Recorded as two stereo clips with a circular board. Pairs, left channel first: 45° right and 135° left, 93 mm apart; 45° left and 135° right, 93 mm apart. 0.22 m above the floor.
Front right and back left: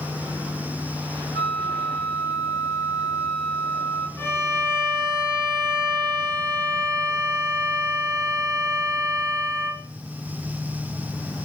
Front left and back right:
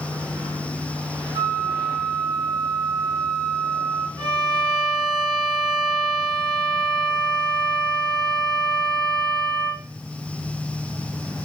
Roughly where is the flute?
Behind right.